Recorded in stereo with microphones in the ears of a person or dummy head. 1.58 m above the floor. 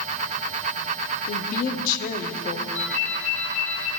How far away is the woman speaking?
About 0.6 m.